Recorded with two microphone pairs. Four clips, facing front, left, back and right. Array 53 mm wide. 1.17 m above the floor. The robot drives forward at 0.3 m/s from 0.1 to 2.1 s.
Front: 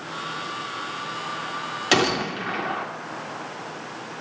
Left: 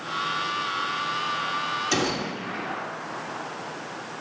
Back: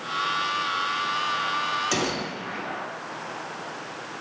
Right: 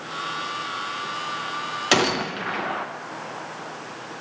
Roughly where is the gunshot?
Ahead right.